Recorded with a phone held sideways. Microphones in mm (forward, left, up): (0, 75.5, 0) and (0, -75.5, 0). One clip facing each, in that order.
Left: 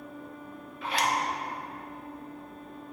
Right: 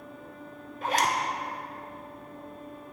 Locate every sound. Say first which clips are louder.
0.8 s a zipper: right 2 dB; 45° right (ahead or behind), 0.6 m